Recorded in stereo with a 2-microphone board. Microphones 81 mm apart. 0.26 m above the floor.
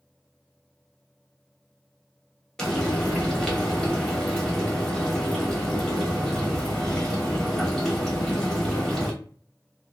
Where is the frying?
5° left (ahead or behind), 0.9 m.